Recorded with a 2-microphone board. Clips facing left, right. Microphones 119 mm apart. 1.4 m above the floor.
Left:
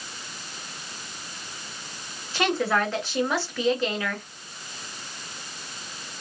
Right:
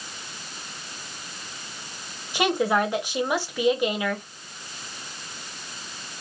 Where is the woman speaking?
15° right (ahead or behind), 1.2 m.